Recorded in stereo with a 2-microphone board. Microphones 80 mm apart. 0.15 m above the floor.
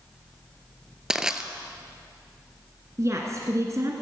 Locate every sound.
1.1 s crushing: 5° right (ahead or behind), 0.9 m
3.0 s a woman speaking: 40° right (ahead or behind), 1.8 m